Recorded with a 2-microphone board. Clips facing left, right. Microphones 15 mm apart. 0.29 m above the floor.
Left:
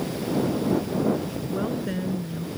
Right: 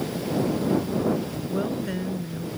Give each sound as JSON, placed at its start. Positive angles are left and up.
{"t": 1.5, "sound": "a woman speaking", "side_deg": 0}